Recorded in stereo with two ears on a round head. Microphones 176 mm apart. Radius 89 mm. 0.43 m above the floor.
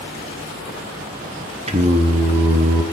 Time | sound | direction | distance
1.7 | singing | 35° right (ahead or behind) | 0.9 m